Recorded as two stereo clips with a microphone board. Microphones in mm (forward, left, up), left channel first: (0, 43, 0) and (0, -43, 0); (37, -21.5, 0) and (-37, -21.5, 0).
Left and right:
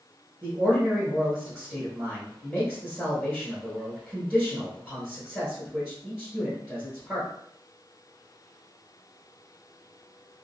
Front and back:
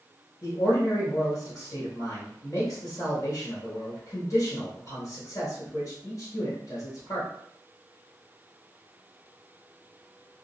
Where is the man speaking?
Straight ahead, 1.4 m.